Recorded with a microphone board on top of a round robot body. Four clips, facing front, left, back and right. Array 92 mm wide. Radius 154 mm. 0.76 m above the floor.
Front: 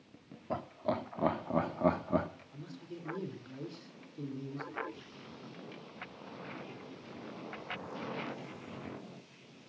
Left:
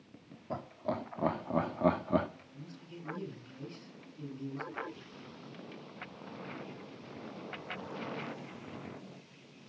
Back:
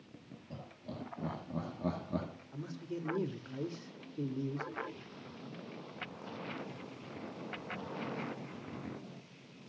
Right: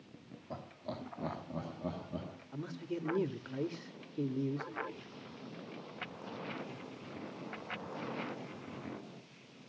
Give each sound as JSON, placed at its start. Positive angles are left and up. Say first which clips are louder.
{"t": 0.5, "sound": "laughter", "louder": "left 7 dB, front 13 dB", "azimuth_deg": 20, "distance_m": 2.5}
{"t": 2.5, "sound": "a man speaking", "louder": "right 9 dB, back 5 dB", "azimuth_deg": -105, "distance_m": 3.0}